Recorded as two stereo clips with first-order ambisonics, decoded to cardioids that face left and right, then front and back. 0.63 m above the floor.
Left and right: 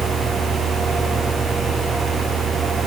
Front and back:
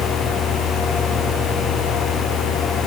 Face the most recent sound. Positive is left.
No sound to turn to.